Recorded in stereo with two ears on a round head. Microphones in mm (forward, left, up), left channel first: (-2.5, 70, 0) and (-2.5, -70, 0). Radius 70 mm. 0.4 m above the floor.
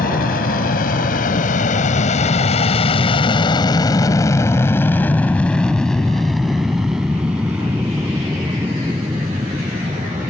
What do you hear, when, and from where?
0.0 s an aircraft: 60° left (ahead or behind); by 10.3 s 15° right (ahead or behind)